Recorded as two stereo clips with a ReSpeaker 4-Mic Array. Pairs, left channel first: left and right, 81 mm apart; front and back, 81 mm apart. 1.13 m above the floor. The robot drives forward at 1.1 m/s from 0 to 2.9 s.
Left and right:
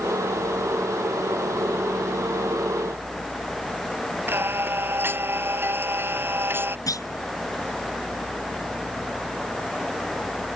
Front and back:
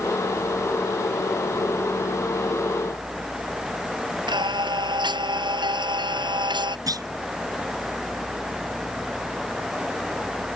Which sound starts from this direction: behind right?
Singing, at 4.3 s.